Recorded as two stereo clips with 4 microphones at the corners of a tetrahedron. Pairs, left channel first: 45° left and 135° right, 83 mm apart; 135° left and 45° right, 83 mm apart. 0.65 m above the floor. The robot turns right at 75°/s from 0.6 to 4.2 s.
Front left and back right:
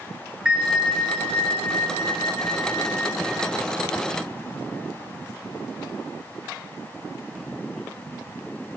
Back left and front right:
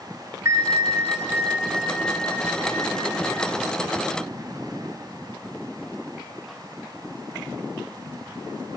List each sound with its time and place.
0.5 s a bell: 60° right, 1.0 m; by 3.5 s 160° left, 1.0 m